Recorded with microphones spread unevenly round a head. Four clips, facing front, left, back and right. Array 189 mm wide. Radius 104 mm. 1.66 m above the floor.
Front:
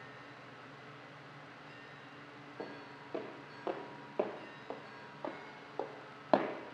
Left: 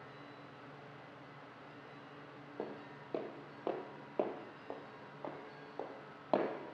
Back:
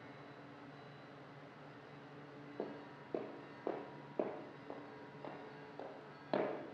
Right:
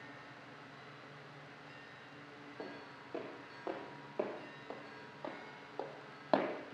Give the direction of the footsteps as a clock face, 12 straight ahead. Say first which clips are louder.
Left 4 dB, even; 8 o'clock.